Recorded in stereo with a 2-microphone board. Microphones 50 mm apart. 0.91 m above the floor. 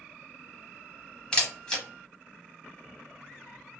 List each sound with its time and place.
1.3 s a camera shutter: 15° left (ahead or behind), 0.8 m